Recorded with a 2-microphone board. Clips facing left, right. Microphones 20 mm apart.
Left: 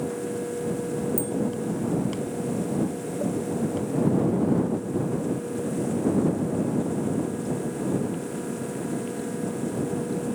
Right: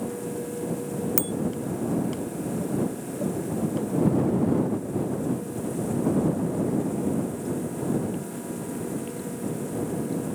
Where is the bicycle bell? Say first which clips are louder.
Even; 65° right (ahead or behind).